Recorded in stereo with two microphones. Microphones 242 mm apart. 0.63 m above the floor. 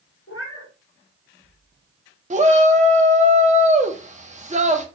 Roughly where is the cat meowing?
Left.